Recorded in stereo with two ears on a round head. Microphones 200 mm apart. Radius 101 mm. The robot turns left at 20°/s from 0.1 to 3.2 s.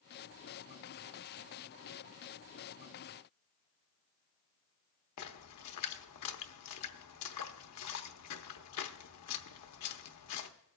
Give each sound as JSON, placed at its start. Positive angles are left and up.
{"t": 5.2, "sound": "a splash", "side_deg": 80, "distance_m": 0.9}